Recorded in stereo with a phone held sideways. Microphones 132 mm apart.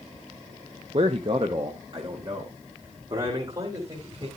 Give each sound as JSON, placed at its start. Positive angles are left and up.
{"t": 0.9, "sound": "a man speaking", "side_deg": -45, "distance_m": 0.7}